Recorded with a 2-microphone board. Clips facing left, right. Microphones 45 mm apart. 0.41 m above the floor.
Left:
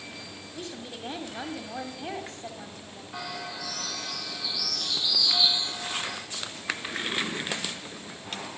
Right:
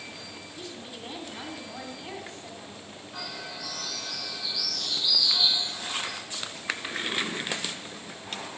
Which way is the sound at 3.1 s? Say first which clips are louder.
Left 3 dB; 55° left (ahead or behind).